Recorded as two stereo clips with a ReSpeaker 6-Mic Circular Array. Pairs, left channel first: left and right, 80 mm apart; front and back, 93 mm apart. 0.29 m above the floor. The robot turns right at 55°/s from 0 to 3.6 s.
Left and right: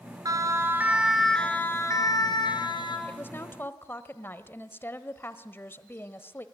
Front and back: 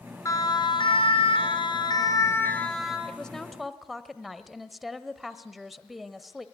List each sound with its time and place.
0.2 s a siren: 50° right, 2.5 m; by 3.0 s 95° left, 4 m
3.1 s a woman speaking: 65° left, 1.1 m; by 6.5 s 95° left, 1.1 m